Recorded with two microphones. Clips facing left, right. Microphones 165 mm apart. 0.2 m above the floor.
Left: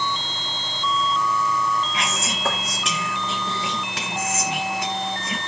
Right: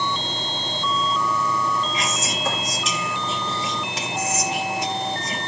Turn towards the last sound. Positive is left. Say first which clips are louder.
# right 1 dB
turn(degrees=65)  # may be behind; listen again after turning